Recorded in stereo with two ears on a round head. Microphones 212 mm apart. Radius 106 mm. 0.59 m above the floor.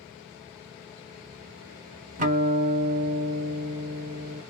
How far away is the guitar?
About 0.9 m.